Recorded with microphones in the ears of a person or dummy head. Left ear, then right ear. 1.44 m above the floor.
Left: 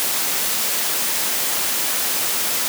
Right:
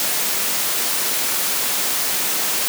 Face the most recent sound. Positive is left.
No sound to turn to.